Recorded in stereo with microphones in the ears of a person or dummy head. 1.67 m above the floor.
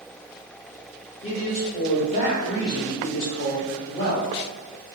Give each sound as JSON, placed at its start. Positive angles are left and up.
{"t": 1.2, "sound": "a man speaking", "side_deg": 40, "distance_m": 0.8}